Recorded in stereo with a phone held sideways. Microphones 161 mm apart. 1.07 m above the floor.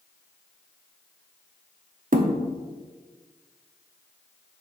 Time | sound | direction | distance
2.1 | a thud | 60° right (ahead or behind) | 0.7 m